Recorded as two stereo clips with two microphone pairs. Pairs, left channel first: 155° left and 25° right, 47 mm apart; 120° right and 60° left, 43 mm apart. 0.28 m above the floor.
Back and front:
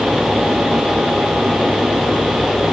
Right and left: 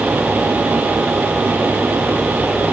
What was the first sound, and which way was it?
Only background noise.